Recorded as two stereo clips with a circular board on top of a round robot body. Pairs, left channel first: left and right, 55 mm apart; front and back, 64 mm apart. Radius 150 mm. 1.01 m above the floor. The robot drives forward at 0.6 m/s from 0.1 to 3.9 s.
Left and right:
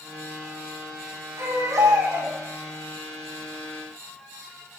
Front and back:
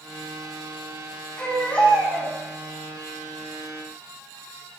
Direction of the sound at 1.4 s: 70° right.